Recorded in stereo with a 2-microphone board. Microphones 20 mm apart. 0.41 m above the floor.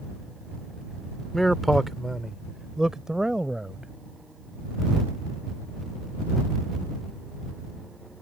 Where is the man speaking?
10° left (ahead or behind); by 3.9 s 40° right (ahead or behind).